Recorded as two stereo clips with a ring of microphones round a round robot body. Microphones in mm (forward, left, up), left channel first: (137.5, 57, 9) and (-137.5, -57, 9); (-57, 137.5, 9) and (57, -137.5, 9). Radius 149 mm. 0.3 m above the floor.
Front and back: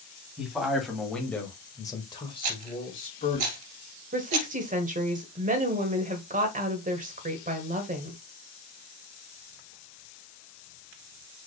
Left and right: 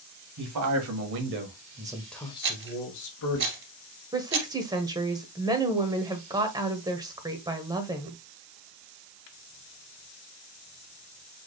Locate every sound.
0.4 s a man speaking: 70° right, 2 m; by 3.4 s 90° left, 2 m
2.4 s a rattle: 125° right, 2.0 m
4.1 s a woman speaking: 130° right, 1.2 m